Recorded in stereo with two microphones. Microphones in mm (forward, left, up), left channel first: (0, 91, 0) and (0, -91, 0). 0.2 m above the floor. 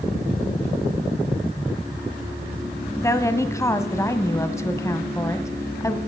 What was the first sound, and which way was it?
A woman speaking, 15° left (ahead or behind).